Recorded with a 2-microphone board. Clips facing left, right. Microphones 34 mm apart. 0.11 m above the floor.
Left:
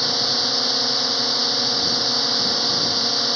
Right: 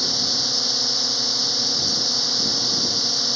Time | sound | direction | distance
0.0 | a drone | 25° left (ahead or behind) | ?